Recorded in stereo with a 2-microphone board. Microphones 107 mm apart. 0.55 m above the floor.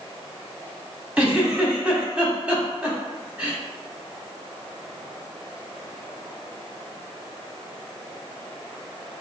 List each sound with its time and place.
1.2 s a giggle: 15° right (ahead or behind), 1.0 m